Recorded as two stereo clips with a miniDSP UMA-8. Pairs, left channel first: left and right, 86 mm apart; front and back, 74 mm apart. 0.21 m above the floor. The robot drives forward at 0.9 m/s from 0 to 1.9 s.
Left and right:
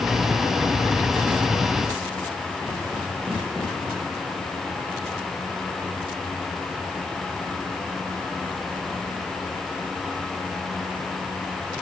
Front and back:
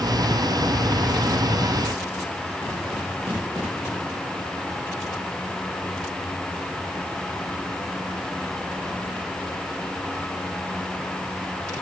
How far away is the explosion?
I don't hear an explosion.